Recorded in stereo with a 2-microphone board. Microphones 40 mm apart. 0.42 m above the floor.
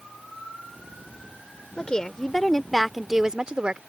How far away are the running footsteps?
I don't hear running footsteps.